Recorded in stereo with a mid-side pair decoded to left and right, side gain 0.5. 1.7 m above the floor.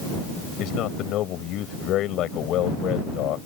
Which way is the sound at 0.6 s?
70° left.